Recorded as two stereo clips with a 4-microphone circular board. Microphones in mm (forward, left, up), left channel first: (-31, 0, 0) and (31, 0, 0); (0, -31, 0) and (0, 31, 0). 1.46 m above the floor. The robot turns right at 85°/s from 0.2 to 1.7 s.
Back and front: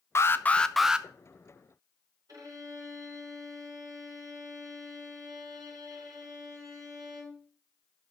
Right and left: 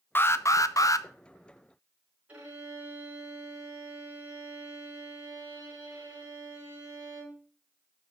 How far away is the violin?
About 5 m.